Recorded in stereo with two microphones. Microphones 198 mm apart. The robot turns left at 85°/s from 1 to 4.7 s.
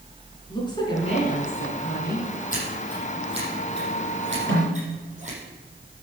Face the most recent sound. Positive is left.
turn(degrees=-65)  # may be behind; listen again after turning